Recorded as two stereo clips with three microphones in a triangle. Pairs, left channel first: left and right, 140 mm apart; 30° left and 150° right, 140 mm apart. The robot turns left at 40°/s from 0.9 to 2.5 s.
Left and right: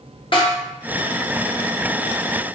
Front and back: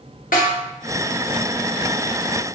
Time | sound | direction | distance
0.3 | a snare drum | 40° left | 0.7 m